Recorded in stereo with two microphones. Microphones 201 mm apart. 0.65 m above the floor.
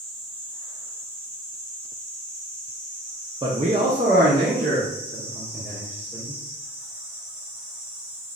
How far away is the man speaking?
About 0.6 m.